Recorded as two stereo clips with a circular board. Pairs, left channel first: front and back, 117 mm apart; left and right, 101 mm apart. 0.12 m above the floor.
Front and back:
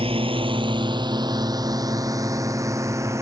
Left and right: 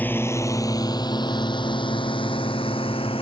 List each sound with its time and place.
0.0 s a drone: 160° left; by 3.2 s 115° left